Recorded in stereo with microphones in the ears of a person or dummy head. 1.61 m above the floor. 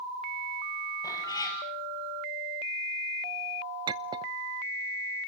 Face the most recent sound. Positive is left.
turn(degrees=-25)  # may be behind; listen again after turning